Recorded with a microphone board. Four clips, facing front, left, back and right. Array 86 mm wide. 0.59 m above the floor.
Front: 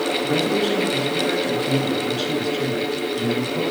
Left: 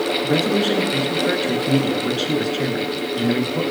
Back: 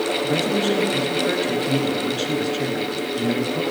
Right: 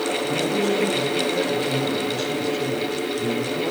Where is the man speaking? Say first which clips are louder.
Left 4 dB, front 1 dB; 100° left, 9 m.